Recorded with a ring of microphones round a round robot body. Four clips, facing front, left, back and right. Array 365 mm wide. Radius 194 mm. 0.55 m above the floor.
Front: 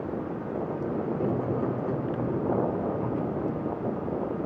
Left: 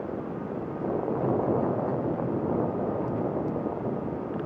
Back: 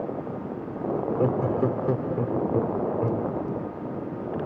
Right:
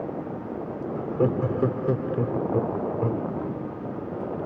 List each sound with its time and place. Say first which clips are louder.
0.9 s laughter: right 3 dB, back 5 dB; 120° right, 1.7 m